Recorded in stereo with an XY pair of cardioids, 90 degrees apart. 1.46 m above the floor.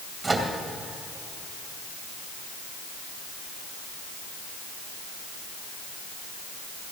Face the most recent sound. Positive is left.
turn(degrees=-25)